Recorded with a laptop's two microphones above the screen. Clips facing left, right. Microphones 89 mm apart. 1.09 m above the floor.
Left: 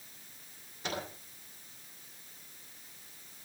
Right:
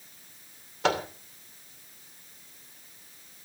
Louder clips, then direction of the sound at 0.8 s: Right 12 dB; 85° right.